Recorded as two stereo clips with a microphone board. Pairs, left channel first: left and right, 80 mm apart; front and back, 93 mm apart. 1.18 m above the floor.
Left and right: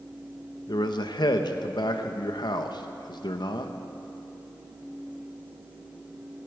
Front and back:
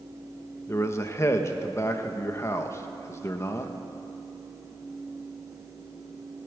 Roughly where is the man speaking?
Ahead left.